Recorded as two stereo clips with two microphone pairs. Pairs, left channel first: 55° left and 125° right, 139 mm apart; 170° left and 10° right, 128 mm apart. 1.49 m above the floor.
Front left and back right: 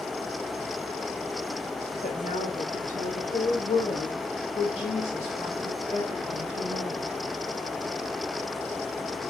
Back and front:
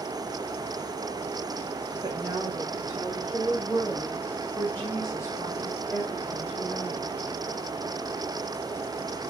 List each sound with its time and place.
2.0 s a woman speaking: 35° left, 1.4 m; by 7.1 s 135° left, 2.5 m